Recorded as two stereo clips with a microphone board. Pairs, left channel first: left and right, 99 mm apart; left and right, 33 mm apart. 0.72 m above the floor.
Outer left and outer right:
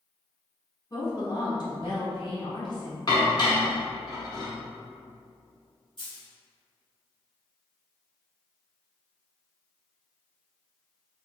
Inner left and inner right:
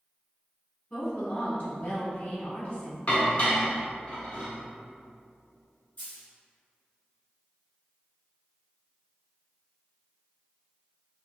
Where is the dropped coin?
60° left (ahead or behind), 1.9 m.